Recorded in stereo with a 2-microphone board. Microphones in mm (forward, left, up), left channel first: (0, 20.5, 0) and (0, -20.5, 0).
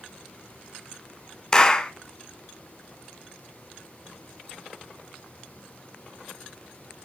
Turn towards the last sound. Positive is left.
turn(degrees=20)  # may be behind; listen again after turning